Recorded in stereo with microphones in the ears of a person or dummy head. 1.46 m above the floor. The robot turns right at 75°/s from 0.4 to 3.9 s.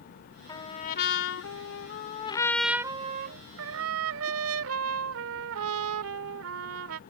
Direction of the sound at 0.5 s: 20° left.